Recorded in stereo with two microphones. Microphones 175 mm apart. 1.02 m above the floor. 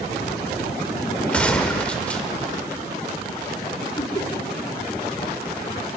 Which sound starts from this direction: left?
Laughter, at 4.0 s.